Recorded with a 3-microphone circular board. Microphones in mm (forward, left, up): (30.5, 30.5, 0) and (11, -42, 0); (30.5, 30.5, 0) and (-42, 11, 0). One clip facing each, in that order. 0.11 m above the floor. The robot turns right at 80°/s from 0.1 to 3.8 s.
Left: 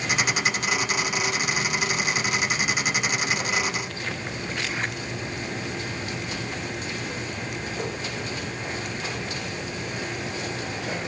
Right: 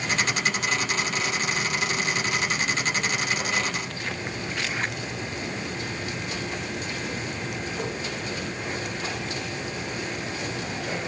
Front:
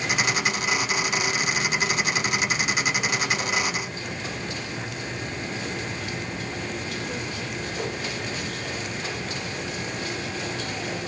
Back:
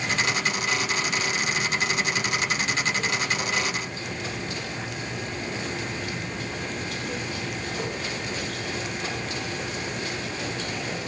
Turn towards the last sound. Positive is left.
No sound to turn to.